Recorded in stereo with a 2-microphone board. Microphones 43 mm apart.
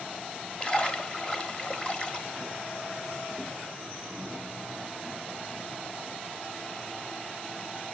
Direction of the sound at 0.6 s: 25° left (ahead or behind).